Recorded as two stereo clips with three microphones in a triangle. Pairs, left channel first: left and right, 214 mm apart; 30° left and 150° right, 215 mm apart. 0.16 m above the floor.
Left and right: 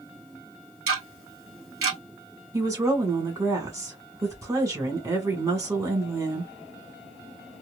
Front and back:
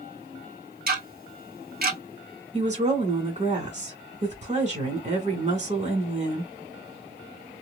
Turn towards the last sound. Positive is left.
turn(degrees=-155)